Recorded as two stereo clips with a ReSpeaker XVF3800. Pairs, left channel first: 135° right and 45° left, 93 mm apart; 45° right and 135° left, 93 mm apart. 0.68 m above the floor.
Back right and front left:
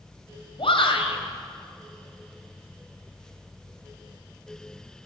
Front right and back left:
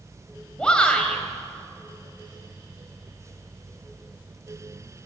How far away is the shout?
About 3.5 m.